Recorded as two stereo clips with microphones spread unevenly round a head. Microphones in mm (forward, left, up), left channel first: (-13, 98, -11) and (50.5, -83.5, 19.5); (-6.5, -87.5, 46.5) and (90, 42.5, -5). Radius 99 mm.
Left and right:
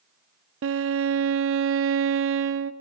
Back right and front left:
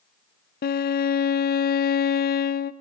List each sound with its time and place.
0.6 s a violin: 100° right, 0.5 m